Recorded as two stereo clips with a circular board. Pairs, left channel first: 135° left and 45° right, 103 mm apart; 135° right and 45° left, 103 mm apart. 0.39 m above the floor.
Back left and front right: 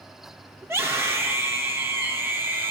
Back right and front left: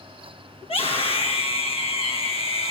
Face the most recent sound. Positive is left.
turn(degrees=-115)